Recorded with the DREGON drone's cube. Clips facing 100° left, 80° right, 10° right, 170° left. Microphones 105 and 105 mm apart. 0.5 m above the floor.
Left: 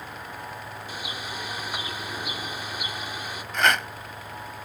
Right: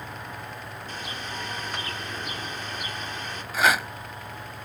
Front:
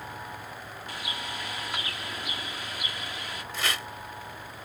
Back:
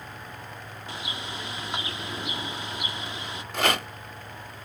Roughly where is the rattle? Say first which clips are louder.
Right 1 dB, back 8 dB; behind.